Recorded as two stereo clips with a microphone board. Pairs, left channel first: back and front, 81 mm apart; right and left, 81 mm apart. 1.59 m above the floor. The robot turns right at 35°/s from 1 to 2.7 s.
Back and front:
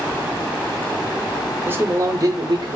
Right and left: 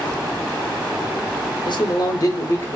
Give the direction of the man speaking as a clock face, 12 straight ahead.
2 o'clock.